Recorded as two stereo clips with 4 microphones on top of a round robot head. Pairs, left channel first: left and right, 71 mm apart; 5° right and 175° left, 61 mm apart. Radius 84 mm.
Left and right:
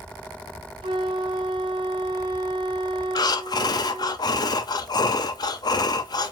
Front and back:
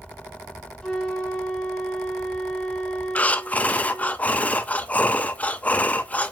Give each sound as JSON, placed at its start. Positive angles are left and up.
{"t": 0.8, "sound": "a flute", "azimuth_deg": -85, "distance_m": 0.7}
{"t": 3.1, "sound": "breathing", "azimuth_deg": 65, "distance_m": 0.6}